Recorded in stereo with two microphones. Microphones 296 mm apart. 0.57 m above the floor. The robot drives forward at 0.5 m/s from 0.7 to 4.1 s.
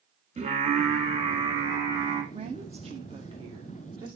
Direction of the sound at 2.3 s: 20° right (ahead or behind).